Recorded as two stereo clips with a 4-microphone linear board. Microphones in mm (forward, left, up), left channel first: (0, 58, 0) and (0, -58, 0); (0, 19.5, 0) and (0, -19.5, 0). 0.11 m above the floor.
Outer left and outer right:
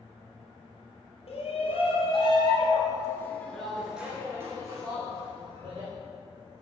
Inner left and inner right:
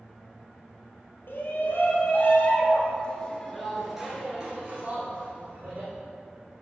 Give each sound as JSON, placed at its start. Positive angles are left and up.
{"t": 1.3, "sound": "a shout", "side_deg": 60, "distance_m": 3.5}